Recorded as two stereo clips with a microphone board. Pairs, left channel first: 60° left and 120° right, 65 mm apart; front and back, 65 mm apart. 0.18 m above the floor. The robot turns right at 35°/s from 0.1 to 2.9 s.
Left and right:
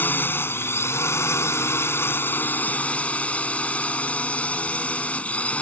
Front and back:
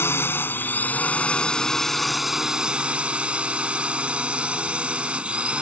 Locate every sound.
0.0 s a drone: 20° left; by 5.6 s 120° left